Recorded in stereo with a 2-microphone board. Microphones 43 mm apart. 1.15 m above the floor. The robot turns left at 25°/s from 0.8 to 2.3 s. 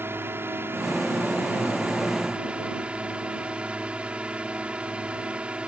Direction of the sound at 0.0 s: 115° right.